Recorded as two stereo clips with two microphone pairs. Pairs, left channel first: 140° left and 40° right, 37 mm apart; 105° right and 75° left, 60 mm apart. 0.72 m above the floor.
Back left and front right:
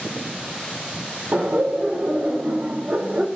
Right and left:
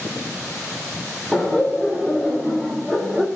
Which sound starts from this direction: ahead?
Laughter, at 1.3 s.